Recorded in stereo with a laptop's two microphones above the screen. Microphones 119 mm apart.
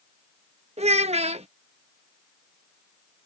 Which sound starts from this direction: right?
A child speaking, at 0.8 s.